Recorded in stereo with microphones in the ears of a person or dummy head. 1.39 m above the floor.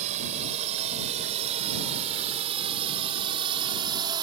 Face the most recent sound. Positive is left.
turn(degrees=-25)  # may be behind; listen again after turning